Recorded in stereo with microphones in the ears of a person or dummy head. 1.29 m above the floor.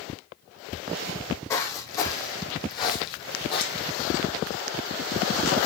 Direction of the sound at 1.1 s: 15° left (ahead or behind).